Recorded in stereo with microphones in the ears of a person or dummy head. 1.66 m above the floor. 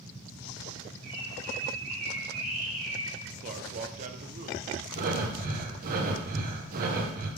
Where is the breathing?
50° right (ahead or behind), 1.4 m.